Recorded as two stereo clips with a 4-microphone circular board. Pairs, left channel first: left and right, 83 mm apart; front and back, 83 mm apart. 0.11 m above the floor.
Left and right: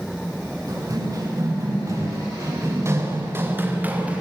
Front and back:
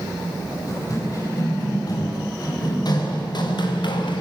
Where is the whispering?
I don't hear whispering.